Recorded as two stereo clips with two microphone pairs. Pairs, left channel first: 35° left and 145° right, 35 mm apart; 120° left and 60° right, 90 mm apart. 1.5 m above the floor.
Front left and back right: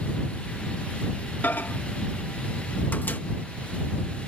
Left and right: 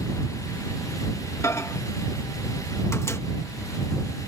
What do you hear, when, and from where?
1.4 s a microwave: 65° left